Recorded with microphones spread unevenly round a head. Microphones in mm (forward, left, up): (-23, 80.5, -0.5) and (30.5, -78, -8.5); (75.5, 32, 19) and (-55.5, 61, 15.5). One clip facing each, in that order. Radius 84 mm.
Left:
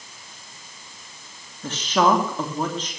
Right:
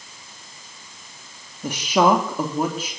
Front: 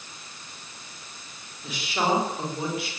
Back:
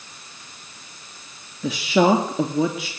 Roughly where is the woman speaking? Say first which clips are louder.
Right 2 dB, back 9 dB; behind right.